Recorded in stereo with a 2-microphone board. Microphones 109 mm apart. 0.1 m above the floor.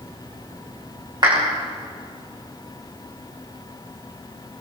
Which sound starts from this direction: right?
A clap, at 1.2 s.